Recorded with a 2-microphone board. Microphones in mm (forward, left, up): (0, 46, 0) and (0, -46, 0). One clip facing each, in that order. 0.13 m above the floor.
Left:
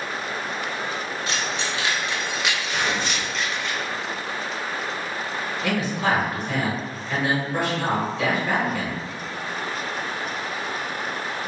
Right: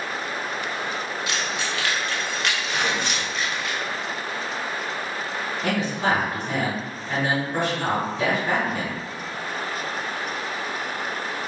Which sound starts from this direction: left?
Keys jangling, at 1.3 s.